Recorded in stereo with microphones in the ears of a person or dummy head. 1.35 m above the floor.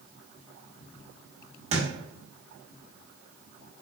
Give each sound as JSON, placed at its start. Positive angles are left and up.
{"t": 1.7, "sound": "a thud", "side_deg": -35, "distance_m": 1.2}